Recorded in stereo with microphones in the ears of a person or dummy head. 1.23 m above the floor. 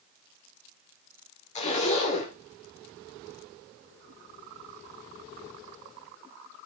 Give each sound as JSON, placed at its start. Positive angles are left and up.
{"t": 1.6, "sound": "a zipper", "side_deg": 40, "distance_m": 3.5}